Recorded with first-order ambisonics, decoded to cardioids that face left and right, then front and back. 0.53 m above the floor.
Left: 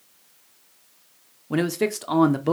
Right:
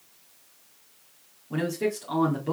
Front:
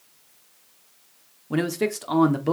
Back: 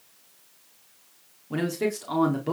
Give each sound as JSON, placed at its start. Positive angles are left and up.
{"t": 1.5, "sound": "a man speaking", "azimuth_deg": 65, "distance_m": 0.9}